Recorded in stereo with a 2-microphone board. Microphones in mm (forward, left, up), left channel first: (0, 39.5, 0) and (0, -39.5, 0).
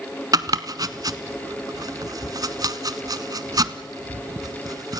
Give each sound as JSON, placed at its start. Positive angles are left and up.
{"t": 0.3, "sound": "chopping", "side_deg": -50, "distance_m": 0.9}